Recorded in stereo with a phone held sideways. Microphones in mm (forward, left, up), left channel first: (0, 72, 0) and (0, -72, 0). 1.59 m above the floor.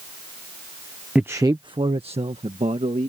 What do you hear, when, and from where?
1.1 s a man speaking: 5° right (ahead or behind); by 3.1 s 50° right (ahead or behind)